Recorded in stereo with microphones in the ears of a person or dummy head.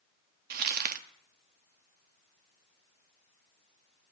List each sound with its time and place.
0.5 s crumpling: 50° right (ahead or behind), 0.7 m